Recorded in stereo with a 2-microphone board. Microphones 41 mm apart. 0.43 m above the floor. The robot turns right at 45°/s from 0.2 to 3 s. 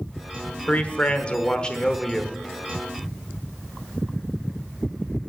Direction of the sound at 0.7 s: 90° left.